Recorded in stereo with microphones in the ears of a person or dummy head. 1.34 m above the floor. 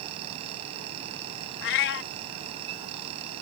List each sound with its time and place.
0.0 s a fan: 35° right (ahead or behind)
1.6 s a cat meowing: 60° left (ahead or behind)